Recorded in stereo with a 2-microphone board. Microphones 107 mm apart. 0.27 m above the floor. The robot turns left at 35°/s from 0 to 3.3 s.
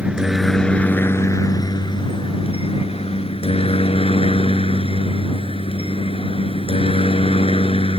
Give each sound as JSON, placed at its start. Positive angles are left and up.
{"t": 0.0, "sound": "a helicopter", "azimuth_deg": -165}